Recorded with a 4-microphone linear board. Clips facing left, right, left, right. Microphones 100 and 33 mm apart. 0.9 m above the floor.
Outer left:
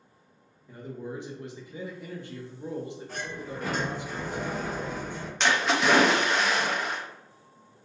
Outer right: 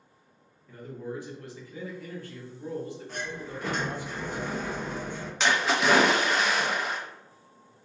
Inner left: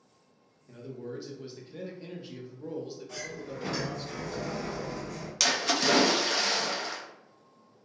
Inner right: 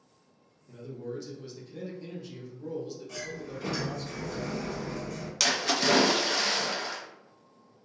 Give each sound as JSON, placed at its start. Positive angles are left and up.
{"t": 0.7, "sound": "a man speaking", "side_deg": 20, "distance_m": 0.6}
{"t": 3.1, "sound": "a sliding door", "side_deg": 0, "distance_m": 1.4}
{"t": 5.4, "sound": "a splash", "side_deg": 0, "distance_m": 0.5}